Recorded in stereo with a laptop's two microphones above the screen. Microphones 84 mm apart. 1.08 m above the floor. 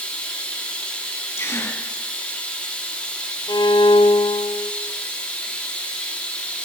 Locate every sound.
0.0 s running water: 15° left (ahead or behind), 1.9 m
1.4 s a gasp: 35° left (ahead or behind), 3 m
3.5 s a violin: 60° left (ahead or behind), 0.7 m